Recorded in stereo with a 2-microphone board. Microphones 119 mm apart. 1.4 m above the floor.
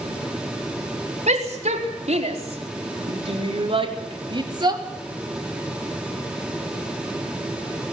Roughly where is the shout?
Right.